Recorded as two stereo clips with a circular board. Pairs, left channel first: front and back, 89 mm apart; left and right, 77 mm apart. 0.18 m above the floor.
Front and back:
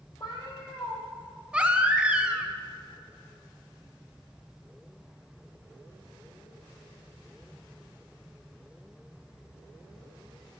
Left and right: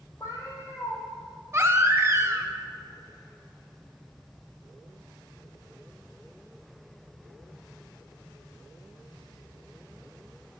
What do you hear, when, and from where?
0.2 s a cat meowing: 40° left, 1.8 m
1.5 s a baby crying: 110° right, 0.5 m